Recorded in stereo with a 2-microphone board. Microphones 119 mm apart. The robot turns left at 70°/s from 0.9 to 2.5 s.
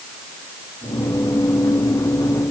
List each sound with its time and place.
Only background noise.